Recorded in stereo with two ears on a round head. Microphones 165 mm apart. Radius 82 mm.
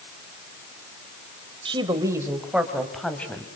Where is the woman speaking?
30° right (ahead or behind), 2.5 m; by 3.5 s 10° left (ahead or behind), 3.5 m.